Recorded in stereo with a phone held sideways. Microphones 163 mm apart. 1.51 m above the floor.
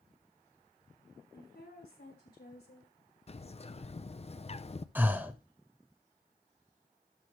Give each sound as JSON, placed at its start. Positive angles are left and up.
{"t": 1.3, "sound": "a woman speaking", "side_deg": 85, "distance_m": 5.5}
{"t": 3.3, "sound": "a bird", "side_deg": 40, "distance_m": 0.6}
{"t": 5.0, "sound": "breathing", "side_deg": -10, "distance_m": 0.9}